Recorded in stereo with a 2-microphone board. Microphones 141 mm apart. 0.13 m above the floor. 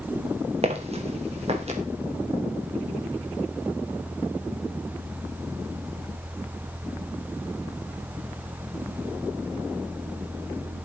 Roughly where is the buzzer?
I don't hear a buzzer.